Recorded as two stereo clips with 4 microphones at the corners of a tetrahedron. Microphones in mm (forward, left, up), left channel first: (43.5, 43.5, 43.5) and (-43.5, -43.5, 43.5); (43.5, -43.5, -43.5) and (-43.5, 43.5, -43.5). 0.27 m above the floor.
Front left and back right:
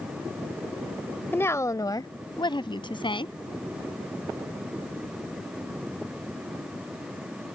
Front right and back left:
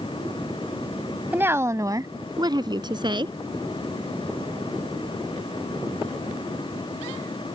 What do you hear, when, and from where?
1.3 s a woman speaking: 90° left